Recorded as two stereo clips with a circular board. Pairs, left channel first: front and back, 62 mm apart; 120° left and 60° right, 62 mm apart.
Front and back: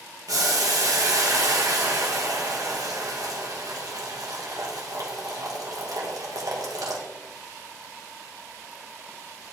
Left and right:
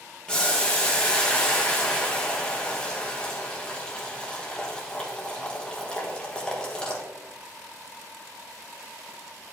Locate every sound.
0.3 s boiling: 165° right, 1.4 m